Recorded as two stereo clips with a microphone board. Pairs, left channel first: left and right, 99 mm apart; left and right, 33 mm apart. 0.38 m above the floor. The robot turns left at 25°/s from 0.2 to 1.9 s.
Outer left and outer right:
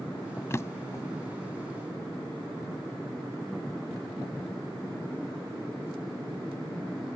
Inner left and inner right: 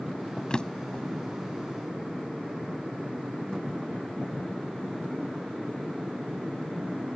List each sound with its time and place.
0.5 s a drawer: 30° left (ahead or behind); by 1.0 s 40° left (ahead or behind)